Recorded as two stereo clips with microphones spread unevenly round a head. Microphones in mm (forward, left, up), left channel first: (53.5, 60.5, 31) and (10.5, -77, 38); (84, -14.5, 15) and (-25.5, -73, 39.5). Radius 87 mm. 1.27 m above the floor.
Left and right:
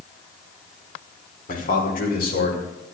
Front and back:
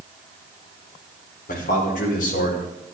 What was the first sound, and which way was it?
A man speaking, 50° left.